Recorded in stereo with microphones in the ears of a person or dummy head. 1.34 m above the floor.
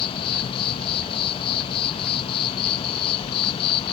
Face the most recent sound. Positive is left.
turn(degrees=25)  # may be behind; listen again after turning